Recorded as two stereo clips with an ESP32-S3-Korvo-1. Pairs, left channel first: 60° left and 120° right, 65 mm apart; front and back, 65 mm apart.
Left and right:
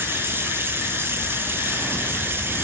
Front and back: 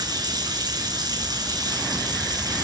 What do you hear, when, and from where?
0.0 s running water: 175° right, 3 m